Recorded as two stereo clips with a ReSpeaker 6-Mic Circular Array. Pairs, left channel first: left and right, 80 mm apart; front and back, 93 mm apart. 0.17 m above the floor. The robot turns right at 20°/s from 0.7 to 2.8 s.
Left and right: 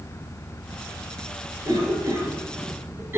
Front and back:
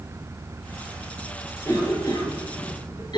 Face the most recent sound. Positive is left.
turn(degrees=-35)